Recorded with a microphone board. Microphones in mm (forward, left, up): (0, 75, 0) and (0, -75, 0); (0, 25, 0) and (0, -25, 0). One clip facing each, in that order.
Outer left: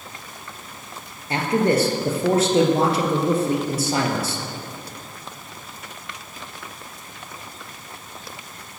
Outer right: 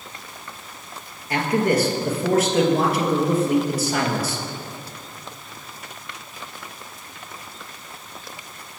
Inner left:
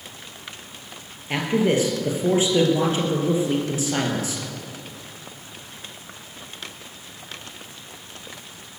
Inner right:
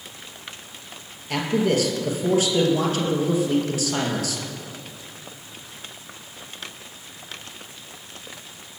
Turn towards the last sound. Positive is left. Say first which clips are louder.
# outer left 1 dB, inner left 1 dB
turn(degrees=30)  # may be behind; listen again after turning